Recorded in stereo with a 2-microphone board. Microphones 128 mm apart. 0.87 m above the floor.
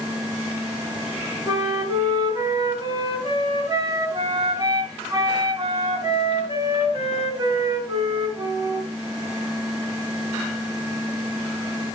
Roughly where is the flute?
Right.